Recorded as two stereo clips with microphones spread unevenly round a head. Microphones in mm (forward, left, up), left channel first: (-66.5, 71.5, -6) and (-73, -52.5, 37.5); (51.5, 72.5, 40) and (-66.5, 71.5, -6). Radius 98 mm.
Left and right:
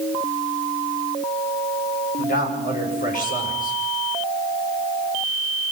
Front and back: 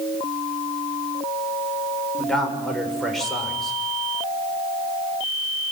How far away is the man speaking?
About 7 m.